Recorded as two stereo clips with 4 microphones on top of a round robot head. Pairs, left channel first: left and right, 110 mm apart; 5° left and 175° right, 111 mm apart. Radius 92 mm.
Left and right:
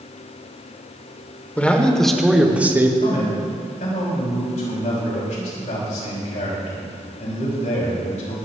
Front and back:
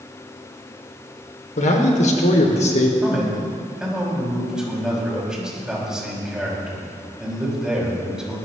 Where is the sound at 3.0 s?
105° left, 6 m.